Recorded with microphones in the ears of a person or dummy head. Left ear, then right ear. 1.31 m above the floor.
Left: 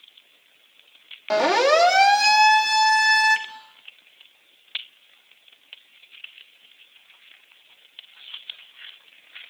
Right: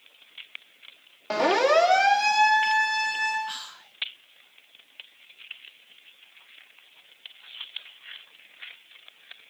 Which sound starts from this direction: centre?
A siren, at 1.3 s.